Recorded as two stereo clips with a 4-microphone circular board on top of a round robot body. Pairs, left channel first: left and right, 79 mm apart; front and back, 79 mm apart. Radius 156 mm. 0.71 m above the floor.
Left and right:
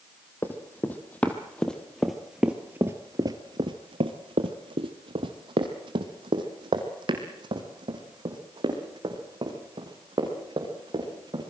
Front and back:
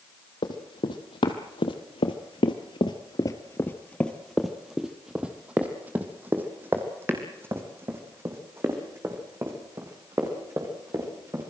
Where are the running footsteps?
25° left, 1.9 m; by 11.5 s 125° right, 5 m.